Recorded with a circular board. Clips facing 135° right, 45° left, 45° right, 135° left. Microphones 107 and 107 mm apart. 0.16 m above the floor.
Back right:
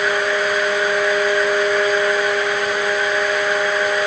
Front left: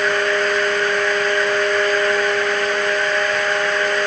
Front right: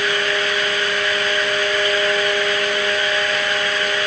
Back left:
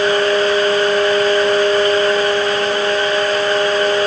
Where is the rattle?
No rattle in this recording.